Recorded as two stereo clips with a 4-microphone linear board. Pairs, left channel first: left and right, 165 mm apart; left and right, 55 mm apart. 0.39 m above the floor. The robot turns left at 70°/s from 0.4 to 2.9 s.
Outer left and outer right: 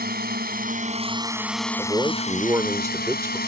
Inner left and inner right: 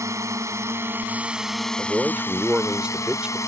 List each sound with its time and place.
0.0 s a drone: 95° right; by 3.5 s 90° left
1.8 s a man speaking: 20° right (ahead or behind)